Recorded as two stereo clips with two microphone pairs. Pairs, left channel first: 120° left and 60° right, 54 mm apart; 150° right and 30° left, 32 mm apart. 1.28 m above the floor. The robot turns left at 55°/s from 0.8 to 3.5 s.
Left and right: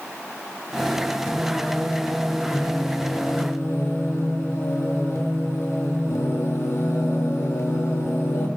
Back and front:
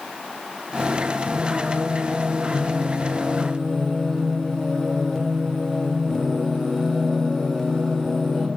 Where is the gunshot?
No gunshot in this recording.